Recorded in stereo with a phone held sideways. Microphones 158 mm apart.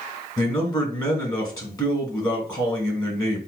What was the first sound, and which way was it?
A man speaking, 25° left (ahead or behind).